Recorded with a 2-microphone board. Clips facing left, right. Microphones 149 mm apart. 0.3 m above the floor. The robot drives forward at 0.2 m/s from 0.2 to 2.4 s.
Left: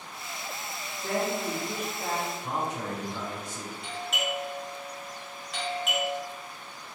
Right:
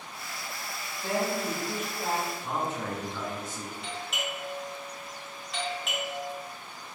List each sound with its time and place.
1.0 s a woman speaking: 30° right (ahead or behind), 1.8 m
2.4 s a man speaking: 15° left (ahead or behind), 1.5 m
3.8 s a doorbell: centre (ahead or behind), 1.3 m